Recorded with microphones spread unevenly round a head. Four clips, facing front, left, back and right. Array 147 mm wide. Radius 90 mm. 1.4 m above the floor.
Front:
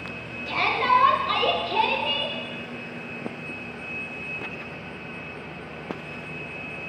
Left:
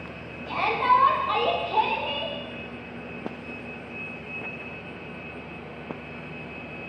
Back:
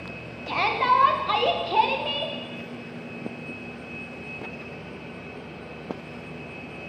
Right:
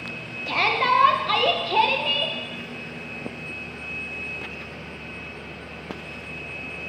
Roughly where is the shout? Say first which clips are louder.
Even, even; behind right.